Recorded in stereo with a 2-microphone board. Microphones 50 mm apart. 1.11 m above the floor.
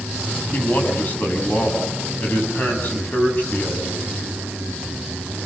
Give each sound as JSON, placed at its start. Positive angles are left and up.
{"t": 0.5, "sound": "a man speaking", "side_deg": 40, "distance_m": 7.5}